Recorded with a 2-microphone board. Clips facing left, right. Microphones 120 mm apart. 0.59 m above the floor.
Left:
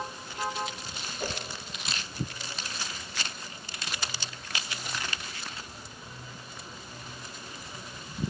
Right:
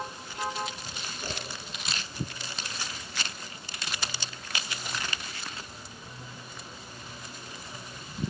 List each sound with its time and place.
1.2 s a whoosh: 75° left (ahead or behind), 1.1 m